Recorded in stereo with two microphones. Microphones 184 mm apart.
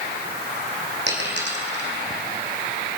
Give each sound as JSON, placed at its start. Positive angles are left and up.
{"t": 1.1, "sound": "a dropped coin", "side_deg": -75, "distance_m": 3.0}